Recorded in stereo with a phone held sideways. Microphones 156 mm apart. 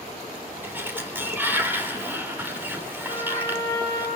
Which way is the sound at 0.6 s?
15° right (ahead or behind).